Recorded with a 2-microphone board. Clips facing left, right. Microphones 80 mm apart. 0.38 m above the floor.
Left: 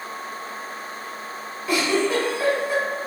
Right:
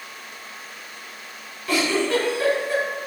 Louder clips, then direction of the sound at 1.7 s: Even; 15° left (ahead or behind).